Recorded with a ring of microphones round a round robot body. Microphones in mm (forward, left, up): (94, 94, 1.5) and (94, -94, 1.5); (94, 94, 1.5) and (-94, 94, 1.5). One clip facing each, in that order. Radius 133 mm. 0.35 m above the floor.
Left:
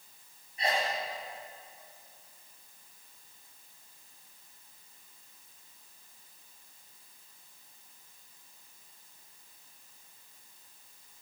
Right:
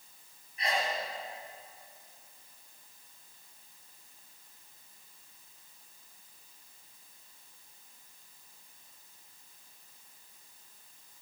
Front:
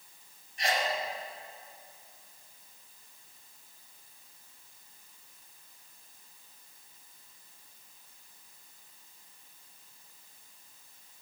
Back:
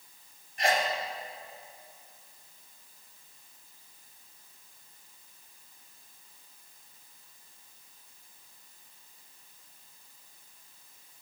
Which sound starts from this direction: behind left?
A sneeze, at 0.6 s.